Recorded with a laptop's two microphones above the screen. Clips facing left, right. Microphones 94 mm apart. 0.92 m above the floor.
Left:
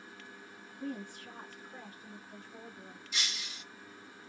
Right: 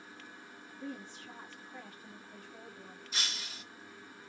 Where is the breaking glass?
35° right (ahead or behind), 0.8 m.